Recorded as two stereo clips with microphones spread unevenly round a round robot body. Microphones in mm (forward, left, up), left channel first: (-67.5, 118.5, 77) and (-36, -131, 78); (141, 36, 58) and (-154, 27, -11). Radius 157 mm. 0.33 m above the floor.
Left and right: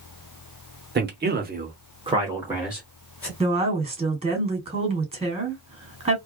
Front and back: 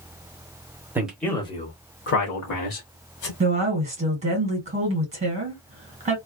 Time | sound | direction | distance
0.9 | a man speaking | 110° right | 1.1 m
3.4 | a woman speaking | 140° right | 1.7 m